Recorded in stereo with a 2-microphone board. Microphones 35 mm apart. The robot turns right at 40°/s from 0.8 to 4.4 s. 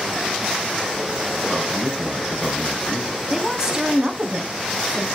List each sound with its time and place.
1.4 s a man speaking: 15° right, 4 m; by 3.1 s 50° left, 4 m
3.3 s a woman speaking: 170° right, 2.5 m; by 5.1 s 125° right, 2.5 m